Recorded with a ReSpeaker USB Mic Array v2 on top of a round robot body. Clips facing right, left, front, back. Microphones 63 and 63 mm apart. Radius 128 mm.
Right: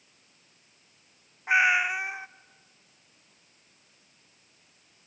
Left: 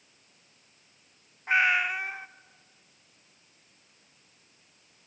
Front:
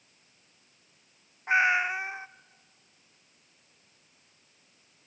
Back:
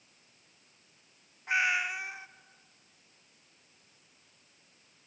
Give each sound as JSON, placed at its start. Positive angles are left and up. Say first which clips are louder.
{"t": 1.5, "sound": "a cat meowing", "louder": "right 2 dB, front 5 dB", "azimuth_deg": -20, "distance_m": 0.5}